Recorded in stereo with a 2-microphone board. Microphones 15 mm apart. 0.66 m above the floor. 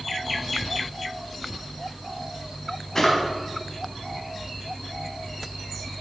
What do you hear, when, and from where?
3.0 s a drawer: 45° left (ahead or behind), 1.9 m